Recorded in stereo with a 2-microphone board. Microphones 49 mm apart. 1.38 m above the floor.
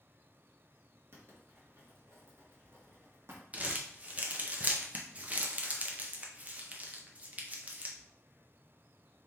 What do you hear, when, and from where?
1.1 s writing: 60° right (ahead or behind), 1.3 m
3.5 s crumpling: 30° right (ahead or behind), 0.6 m